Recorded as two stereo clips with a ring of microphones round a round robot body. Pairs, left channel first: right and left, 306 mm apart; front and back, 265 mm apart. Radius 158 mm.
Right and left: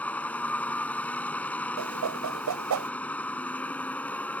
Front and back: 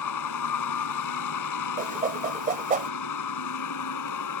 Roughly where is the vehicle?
Ahead.